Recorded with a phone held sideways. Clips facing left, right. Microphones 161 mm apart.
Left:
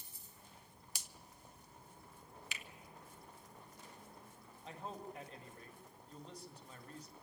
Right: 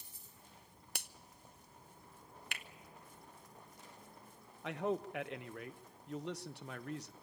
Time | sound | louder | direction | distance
0.9 | a finger snap | right 8 dB | 65° right (ahead or behind) | 0.6 m
2.5 | a finger snap | right 3 dB | 60° right (ahead or behind) | 0.7 m
4.6 | a man speaking | right 10 dB | 80° right | 0.9 m